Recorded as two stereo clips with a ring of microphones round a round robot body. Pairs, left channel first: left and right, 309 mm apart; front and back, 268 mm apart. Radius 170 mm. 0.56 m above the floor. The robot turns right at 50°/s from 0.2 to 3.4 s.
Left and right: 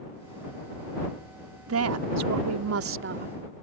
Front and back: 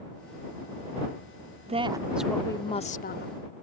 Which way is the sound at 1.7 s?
120° right.